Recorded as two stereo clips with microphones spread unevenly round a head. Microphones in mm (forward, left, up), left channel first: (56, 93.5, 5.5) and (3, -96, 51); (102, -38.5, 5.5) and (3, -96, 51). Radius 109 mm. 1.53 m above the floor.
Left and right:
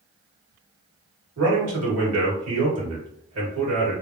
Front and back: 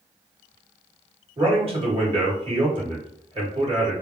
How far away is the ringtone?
I don't hear a ringtone.